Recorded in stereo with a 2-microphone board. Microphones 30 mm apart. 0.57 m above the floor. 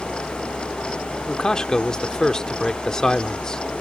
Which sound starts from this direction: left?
A man speaking, at 1.3 s.